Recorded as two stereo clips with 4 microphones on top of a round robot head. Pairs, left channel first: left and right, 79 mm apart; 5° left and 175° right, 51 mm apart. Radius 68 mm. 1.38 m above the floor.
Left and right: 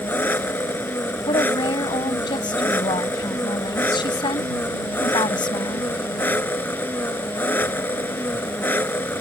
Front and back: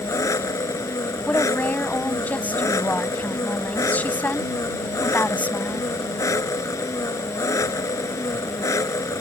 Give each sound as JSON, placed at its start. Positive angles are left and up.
{"t": 0.0, "sound": "an engine running", "azimuth_deg": 25}
{"t": 1.3, "sound": "a woman speaking", "azimuth_deg": 60}